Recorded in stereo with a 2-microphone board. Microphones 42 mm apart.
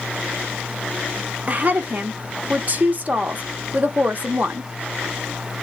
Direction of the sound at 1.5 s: 40° right (ahead or behind).